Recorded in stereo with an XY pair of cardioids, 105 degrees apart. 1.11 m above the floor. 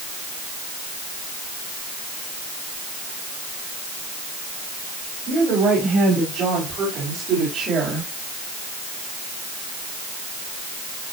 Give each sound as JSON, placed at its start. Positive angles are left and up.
{"t": 5.3, "sound": "a woman speaking", "azimuth_deg": -60, "distance_m": 7.0}